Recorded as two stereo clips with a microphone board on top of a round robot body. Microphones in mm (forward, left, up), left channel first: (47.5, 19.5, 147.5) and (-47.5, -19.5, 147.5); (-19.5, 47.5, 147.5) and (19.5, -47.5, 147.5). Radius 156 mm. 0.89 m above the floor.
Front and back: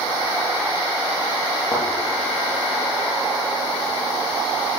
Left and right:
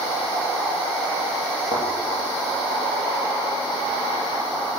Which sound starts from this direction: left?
A thud, at 1.7 s.